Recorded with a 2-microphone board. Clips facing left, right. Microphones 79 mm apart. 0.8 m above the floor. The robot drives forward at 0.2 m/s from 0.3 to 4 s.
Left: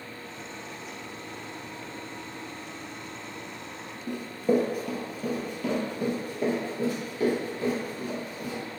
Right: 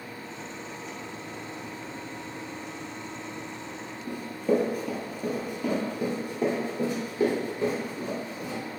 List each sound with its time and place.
4.1 s running footsteps: 20° left (ahead or behind), 1.0 m; by 8.6 s 30° right (ahead or behind), 3 m